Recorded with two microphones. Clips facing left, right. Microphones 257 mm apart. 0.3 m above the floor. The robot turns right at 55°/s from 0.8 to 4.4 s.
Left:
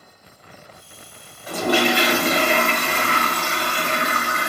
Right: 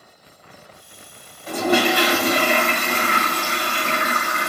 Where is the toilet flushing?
10° left, 1.7 m; by 4.5 s 170° left, 1.7 m.